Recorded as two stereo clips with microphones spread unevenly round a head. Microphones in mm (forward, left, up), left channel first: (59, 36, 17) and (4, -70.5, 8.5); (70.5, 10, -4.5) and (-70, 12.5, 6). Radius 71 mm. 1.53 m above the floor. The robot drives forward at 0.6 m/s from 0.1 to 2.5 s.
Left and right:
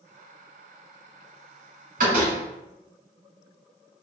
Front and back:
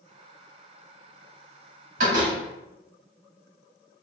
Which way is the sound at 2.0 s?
155° right.